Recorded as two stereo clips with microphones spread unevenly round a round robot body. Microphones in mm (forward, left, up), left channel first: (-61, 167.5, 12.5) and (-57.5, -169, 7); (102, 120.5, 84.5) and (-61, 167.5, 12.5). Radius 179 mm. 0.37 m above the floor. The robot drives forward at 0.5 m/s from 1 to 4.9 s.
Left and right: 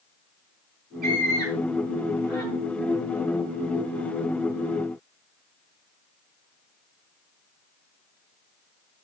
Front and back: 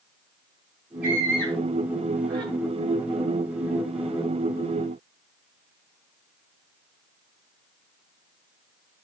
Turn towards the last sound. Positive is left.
turn(degrees=-135)